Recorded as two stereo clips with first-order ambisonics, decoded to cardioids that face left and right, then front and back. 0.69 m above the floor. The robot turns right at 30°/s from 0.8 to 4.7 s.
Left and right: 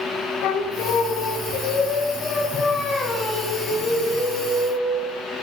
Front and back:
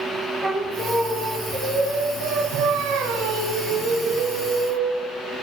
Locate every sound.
0.4 s singing: 105° left, 0.9 m; by 5.1 s 135° right, 0.9 m